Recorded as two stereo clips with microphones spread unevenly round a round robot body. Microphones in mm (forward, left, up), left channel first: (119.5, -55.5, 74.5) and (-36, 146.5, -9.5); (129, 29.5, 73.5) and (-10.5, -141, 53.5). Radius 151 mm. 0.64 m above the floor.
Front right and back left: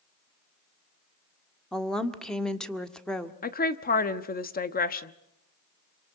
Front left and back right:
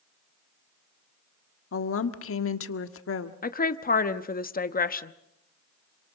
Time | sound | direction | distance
1.7 | a woman speaking | 45° left | 1.6 m
3.4 | a woman speaking | 10° left | 1.1 m